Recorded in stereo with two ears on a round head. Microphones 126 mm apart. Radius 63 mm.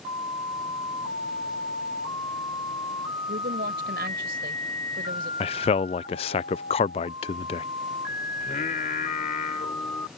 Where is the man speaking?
40° left (ahead or behind).